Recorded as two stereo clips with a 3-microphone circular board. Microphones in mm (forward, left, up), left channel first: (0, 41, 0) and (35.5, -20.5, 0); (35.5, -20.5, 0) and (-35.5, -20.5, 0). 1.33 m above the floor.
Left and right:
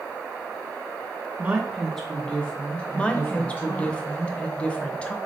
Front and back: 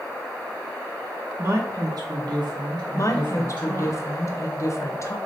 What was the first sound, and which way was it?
A woman speaking, 120° right.